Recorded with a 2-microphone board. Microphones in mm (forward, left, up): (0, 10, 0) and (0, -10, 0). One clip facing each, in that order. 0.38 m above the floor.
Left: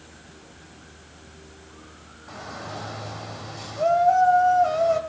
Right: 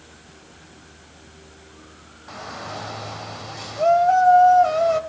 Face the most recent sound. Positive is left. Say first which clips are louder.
# right 3 dB
turn(degrees=-25)  # may be behind; listen again after turning